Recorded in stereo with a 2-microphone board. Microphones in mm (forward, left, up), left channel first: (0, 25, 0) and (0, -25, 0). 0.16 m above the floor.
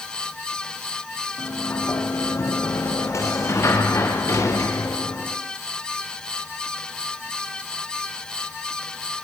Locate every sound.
1.4 s a sliding door: 70° left (ahead or behind), 6 m